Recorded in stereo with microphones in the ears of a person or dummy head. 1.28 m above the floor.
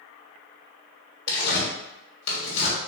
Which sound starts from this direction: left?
Tearing paper, at 1.3 s.